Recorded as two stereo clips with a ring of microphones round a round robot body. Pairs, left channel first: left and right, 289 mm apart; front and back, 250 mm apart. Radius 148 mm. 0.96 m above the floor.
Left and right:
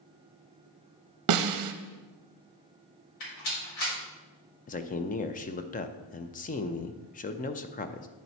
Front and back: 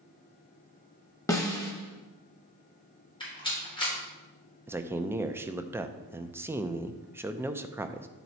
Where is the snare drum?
80° right, 0.6 m.